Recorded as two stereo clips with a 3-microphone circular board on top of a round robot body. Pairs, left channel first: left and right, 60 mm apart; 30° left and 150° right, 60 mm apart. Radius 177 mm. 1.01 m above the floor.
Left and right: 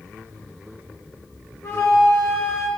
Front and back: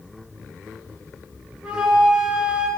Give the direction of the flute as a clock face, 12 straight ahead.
7 o'clock.